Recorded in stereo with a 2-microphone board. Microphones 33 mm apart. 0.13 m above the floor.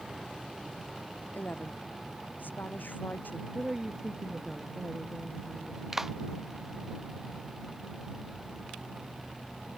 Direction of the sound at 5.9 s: 10° right (ahead or behind).